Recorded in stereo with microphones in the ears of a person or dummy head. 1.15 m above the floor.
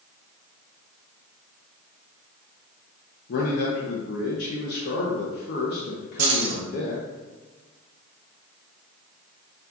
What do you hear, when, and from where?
3.3 s a man speaking: 60° left (ahead or behind), 0.7 m
6.2 s keys jangling: 50° right (ahead or behind), 1.0 m